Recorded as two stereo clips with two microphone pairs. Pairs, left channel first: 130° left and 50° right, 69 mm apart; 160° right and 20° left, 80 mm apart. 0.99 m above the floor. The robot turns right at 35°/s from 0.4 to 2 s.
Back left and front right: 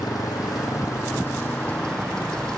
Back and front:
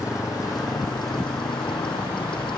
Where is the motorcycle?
155° left; by 2.6 s 150° right.